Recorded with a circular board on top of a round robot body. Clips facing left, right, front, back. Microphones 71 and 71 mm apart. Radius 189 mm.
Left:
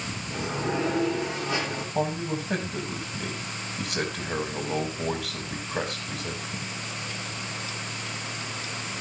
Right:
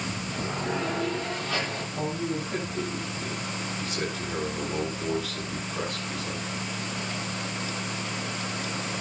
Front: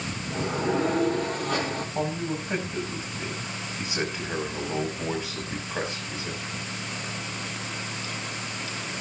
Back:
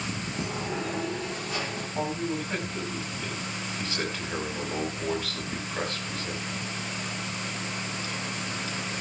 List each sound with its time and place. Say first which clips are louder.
0.3 s a sliding door: left 3 dB, front 9 dB; 25° left, 6 m
1.9 s a man speaking: left 3 dB, back 1 dB; 75° left, 5.5 m